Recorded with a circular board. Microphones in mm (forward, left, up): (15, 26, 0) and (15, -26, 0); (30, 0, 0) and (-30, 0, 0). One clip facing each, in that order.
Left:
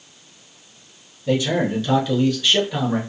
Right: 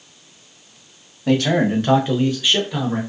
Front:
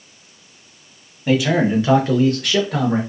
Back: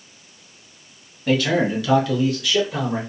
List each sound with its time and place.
1.3 s a man speaking: 80° right, 0.8 m; by 3.0 s 10° left, 0.8 m